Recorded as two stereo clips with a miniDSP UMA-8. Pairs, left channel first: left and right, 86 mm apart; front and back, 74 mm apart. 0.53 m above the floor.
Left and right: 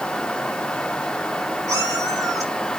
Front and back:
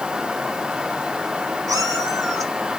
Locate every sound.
1.7 s a cat meowing: 140° right, 3 m; by 2.8 s 135° right, 3.5 m